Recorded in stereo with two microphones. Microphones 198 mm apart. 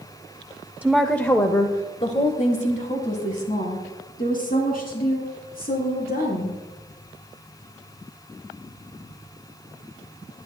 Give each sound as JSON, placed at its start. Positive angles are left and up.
{"t": 0.8, "sound": "a woman speaking", "side_deg": -10, "distance_m": 0.6}